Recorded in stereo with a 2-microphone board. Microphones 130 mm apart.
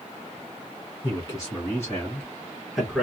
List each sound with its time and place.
1.0 s a man speaking: 35° left (ahead or behind), 1.8 m; by 3.0 s 5° right (ahead or behind), 2.0 m